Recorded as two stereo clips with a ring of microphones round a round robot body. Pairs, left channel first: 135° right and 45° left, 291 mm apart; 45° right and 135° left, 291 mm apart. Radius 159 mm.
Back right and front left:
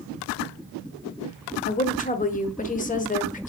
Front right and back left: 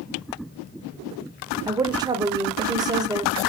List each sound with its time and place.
1.7 s a woman speaking: 160° right, 0.9 m